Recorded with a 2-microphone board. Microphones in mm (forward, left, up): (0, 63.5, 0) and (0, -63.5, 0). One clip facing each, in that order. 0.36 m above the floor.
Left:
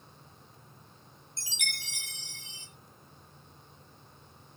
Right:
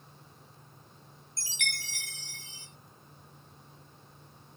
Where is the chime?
20° left (ahead or behind), 1.9 m.